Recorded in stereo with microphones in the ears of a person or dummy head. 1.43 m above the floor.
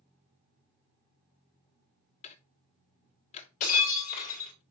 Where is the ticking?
40° left (ahead or behind), 0.9 m.